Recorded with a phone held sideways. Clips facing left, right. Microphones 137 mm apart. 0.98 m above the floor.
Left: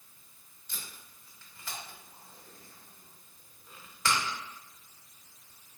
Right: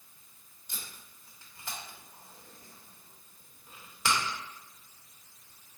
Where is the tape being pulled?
10° right (ahead or behind), 1.1 m.